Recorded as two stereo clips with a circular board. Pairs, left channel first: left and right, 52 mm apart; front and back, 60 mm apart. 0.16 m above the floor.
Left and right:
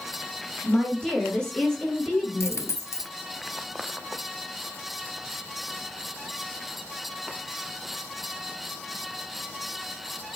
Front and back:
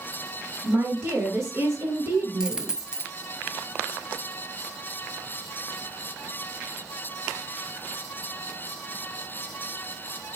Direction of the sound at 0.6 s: 145° left.